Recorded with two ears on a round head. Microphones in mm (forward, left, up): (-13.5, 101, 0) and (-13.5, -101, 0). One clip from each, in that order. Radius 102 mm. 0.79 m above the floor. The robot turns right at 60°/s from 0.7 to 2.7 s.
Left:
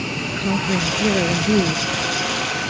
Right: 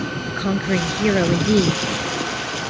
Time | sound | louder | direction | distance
0.3 | a woman speaking | even | 150° right | ?